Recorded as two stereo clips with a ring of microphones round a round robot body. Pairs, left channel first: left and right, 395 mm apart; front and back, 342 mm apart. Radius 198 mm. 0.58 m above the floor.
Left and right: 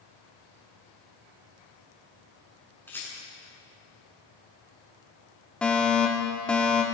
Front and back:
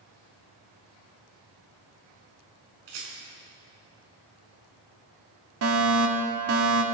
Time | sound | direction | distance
2.9 | a rattle | 175° left | 7.5 m
5.6 | a fire alarm | 175° left | 2 m